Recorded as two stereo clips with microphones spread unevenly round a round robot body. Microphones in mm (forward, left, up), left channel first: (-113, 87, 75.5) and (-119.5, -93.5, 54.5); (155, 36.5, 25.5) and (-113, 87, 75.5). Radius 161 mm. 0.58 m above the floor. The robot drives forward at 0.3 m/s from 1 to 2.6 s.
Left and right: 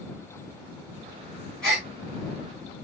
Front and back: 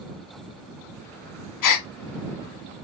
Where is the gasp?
Straight ahead, 0.7 m; by 1.9 s 5° left, 0.6 m.